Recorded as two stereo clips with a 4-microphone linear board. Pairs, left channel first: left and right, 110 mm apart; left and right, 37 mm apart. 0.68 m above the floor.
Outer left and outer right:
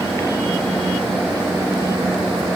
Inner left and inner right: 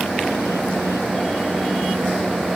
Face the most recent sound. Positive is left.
No sound to turn to.